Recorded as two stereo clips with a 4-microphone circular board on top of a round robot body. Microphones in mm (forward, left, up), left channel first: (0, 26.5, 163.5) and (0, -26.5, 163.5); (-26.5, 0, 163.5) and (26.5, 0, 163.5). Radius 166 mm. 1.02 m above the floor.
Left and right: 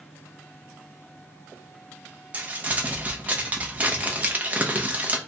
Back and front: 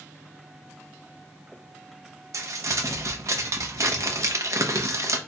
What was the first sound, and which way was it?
Crumpling, 25° right.